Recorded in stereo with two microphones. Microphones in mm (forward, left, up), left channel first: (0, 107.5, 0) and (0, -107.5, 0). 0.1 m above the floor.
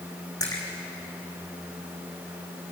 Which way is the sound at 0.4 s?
15° left (ahead or behind).